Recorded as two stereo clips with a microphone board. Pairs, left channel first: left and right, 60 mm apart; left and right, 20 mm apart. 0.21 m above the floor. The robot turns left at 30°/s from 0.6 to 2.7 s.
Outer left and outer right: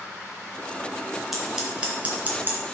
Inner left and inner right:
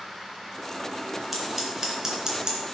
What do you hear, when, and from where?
1.3 s scissors: 5° right (ahead or behind), 3 m; by 2.6 s 40° right (ahead or behind), 3 m